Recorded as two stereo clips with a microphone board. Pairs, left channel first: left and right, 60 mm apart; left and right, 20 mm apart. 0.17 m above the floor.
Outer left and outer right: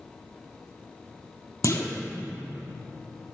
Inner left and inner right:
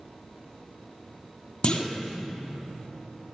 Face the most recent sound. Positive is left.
turn(degrees=55)  # may be behind; listen again after turning